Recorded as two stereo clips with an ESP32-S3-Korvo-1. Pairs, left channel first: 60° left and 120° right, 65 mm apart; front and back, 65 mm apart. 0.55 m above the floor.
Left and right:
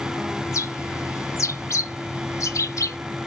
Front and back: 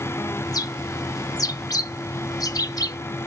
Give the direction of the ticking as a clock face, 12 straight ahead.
I don't hear ticking.